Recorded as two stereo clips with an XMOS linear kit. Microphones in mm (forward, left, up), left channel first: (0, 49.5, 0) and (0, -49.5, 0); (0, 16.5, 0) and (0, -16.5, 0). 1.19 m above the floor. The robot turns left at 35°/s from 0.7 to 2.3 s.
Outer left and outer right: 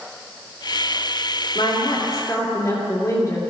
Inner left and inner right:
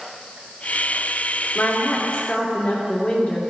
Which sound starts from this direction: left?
A woman speaking, at 1.6 s.